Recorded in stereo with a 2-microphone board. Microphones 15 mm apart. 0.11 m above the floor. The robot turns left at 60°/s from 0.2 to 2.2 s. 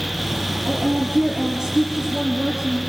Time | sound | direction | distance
0.7 | a woman speaking | 65° right | 3.5 m